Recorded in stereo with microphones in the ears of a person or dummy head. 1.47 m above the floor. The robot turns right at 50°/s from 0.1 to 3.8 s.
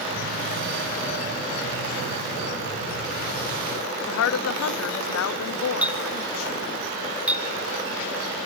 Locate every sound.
4.1 s a woman speaking: 80° left, 0.7 m
5.8 s a clink: 10° right (ahead or behind), 1.6 m